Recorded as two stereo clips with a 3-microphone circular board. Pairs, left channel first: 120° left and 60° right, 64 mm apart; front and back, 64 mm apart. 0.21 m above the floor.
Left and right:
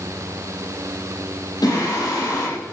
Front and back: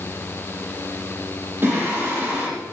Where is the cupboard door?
No cupboard door in this recording.